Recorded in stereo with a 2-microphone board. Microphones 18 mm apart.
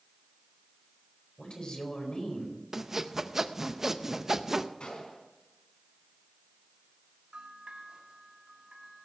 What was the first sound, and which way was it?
A woman speaking, 55° left (ahead or behind).